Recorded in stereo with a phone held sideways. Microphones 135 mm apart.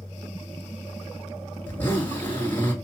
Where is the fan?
40° left (ahead or behind), 2 m.